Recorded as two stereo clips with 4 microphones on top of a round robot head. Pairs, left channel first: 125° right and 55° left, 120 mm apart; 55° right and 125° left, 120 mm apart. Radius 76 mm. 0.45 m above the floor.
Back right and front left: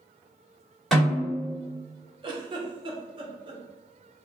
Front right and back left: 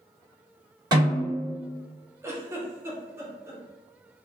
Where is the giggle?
70° left, 0.8 m.